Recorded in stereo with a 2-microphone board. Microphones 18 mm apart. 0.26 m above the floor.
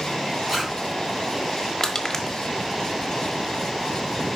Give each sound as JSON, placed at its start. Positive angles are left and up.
{"t": 0.5, "sound": "a zipper", "side_deg": -15, "distance_m": 3.5}
{"t": 1.8, "sound": "crushing", "side_deg": 20, "distance_m": 1.3}